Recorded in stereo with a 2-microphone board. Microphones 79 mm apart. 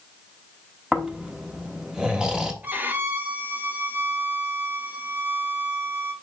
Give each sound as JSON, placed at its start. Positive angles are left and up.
{"t": 0.9, "sound": "snoring", "side_deg": -10, "distance_m": 1.0}
{"t": 2.6, "sound": "a violin", "side_deg": -25, "distance_m": 0.9}